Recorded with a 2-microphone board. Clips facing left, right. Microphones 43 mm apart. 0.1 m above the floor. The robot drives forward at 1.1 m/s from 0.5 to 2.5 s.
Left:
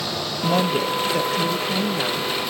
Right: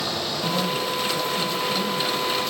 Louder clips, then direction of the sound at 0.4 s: Left 6 dB; 55° left (ahead or behind).